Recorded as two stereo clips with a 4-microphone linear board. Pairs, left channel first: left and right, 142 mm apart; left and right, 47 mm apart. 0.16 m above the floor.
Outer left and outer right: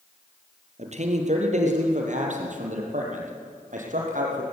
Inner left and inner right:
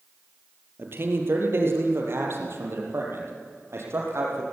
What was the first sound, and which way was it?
A man speaking, 50° right (ahead or behind).